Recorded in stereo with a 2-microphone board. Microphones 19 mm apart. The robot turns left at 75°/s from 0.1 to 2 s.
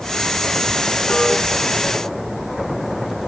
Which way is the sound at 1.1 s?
75° left (ahead or behind).